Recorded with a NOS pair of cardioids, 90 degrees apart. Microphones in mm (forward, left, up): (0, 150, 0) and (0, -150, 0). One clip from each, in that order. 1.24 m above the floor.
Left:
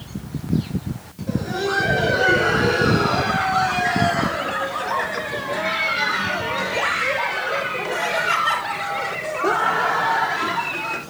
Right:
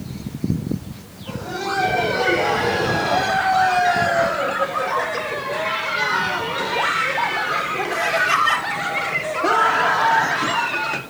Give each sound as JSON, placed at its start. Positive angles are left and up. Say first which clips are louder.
{"t": 1.3, "sound": "laughter", "louder": "left 2 dB", "azimuth_deg": 5, "distance_m": 6.5}